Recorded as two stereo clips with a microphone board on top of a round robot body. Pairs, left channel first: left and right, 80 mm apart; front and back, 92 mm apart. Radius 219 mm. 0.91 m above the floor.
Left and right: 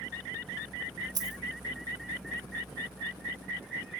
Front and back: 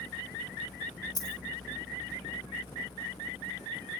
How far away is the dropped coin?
About 1.7 m.